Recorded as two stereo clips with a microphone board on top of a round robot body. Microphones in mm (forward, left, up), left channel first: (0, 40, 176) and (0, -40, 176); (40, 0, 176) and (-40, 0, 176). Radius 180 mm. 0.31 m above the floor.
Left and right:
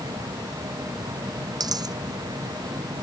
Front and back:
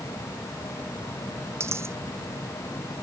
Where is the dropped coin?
125° right.